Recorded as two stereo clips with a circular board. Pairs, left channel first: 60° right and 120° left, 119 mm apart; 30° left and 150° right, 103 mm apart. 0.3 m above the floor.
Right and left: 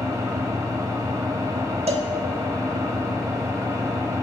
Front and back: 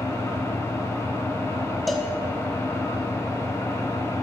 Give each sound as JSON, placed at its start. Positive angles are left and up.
{"t": 0.0, "sound": "an engine running", "azimuth_deg": 75, "distance_m": 1.1}
{"t": 1.9, "sound": "a cowbell", "azimuth_deg": 120, "distance_m": 0.7}